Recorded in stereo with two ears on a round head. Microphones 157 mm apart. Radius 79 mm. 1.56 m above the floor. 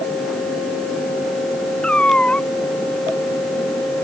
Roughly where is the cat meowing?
Centre.